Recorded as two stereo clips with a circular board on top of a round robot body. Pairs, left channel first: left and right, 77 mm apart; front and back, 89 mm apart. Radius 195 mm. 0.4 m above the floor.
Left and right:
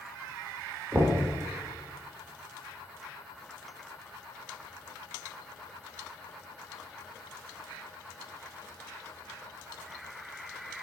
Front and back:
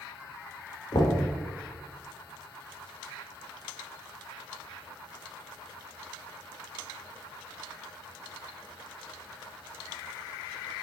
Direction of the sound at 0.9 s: 30° right.